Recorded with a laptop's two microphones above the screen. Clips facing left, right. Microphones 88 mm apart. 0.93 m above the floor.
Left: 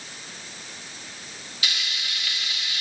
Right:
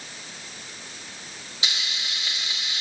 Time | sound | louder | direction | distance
1.6 | frying | even | 25° right (ahead or behind) | 1.3 m